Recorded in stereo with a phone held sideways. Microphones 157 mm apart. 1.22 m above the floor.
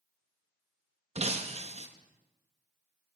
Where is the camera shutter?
No camera shutter in this recording.